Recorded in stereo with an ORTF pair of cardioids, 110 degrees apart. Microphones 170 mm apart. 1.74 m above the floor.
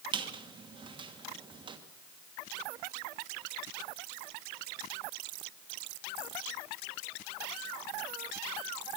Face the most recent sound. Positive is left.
turn(degrees=-30)